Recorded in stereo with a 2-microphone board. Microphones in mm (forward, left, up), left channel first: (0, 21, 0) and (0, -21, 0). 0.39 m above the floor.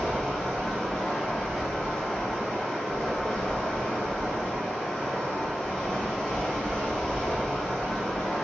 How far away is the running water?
About 1.4 m.